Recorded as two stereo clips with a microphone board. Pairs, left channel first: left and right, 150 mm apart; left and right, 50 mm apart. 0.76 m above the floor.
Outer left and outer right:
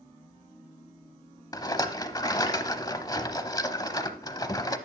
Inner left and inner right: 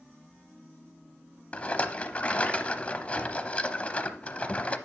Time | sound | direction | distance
1.5 | a rattle | 25° left (ahead or behind) | 0.7 m